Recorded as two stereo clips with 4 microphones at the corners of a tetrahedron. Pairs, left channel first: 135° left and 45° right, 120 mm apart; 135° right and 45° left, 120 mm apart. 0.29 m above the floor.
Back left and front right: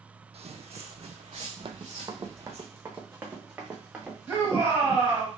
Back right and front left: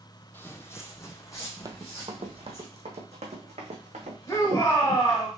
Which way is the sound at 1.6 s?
10° right.